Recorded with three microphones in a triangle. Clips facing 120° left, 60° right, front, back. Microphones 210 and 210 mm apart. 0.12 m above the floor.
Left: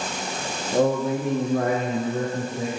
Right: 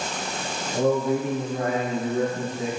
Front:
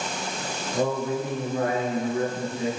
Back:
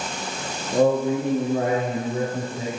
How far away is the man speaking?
About 5.5 m.